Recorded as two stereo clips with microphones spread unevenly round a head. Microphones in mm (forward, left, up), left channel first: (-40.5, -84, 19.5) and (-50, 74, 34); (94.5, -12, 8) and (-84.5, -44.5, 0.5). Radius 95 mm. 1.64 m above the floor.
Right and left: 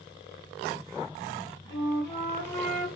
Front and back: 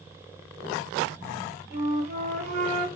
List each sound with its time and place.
1.7 s a flute: 155° right, 1.6 m